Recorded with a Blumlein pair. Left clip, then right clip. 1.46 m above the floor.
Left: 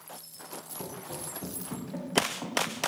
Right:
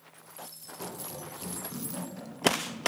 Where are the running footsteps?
20° left, 8 m.